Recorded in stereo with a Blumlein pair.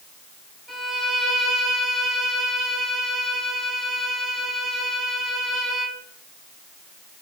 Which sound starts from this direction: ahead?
A violin, at 0.7 s.